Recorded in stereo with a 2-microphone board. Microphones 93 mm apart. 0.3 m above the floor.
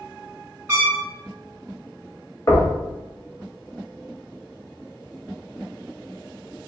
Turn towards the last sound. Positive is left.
turn(degrees=35)  # may be behind; listen again after turning